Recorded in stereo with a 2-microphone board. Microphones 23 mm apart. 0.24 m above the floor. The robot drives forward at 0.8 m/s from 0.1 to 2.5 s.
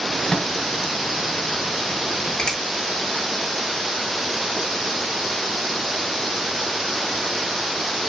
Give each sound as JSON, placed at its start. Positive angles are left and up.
{"t": 0.3, "sound": "a microwave", "side_deg": 35, "distance_m": 1.0}
{"t": 2.4, "sound": "a finger snap", "side_deg": 45, "distance_m": 3.5}